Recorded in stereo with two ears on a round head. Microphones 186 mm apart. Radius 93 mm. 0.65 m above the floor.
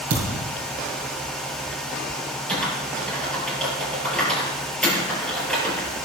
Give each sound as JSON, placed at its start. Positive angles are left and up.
{"t": 0.1, "sound": "a thud", "side_deg": -65, "distance_m": 5.5}
{"t": 2.5, "sound": "typing on a keyboard", "side_deg": 5, "distance_m": 5.0}